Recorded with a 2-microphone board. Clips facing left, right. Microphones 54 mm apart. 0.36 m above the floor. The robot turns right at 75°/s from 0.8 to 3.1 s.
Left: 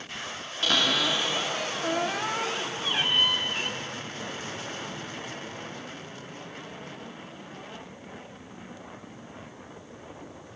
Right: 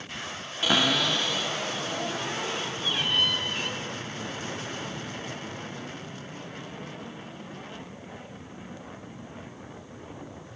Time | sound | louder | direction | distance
0.6 | a cupboard door | right 1 dB | 15° right | 0.9 m